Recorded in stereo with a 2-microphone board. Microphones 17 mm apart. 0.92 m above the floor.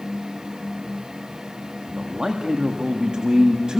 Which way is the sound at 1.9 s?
65° right (ahead or behind).